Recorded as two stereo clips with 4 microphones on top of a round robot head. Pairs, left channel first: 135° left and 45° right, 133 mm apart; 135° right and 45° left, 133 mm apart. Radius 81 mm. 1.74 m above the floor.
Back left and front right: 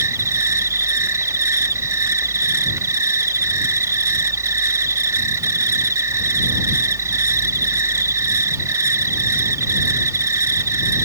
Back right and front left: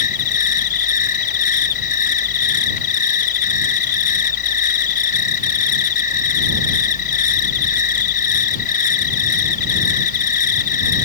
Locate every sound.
0.0 s an insect: 110° right